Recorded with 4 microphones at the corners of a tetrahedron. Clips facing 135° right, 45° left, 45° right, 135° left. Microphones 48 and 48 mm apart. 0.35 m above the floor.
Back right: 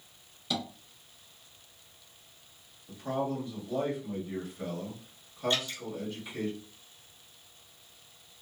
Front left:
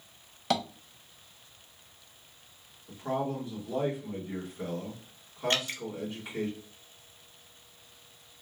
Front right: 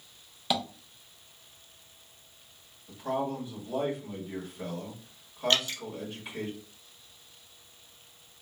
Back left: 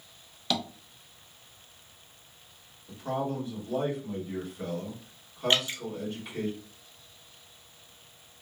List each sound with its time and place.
0.5 s tapping: 30° left, 0.7 m
2.9 s a man speaking: 30° left, 1.5 m
5.5 s dripping: 65° left, 0.6 m